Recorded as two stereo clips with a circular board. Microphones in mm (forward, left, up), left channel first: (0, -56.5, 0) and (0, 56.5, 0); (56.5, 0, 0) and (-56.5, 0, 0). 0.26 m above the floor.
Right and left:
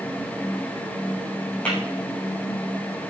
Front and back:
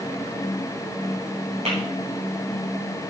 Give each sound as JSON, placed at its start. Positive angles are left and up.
{"t": 1.6, "sound": "tapping", "azimuth_deg": -170, "distance_m": 8.0}